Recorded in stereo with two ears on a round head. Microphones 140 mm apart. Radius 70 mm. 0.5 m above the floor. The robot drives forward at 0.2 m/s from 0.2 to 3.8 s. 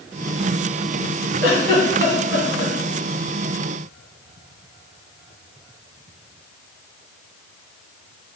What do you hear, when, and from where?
1.4 s a giggle: 80° left, 2 m